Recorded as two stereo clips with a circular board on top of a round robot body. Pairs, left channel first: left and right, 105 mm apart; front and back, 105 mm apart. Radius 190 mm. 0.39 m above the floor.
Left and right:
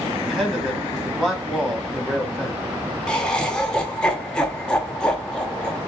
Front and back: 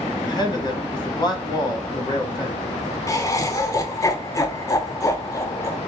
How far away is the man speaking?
About 1.7 m.